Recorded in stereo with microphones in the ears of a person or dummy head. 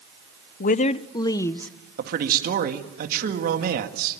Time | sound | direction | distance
0.6 | a woman speaking | 50° left (ahead or behind) | 0.7 m
2.0 | a man speaking | 50° right (ahead or behind) | 2 m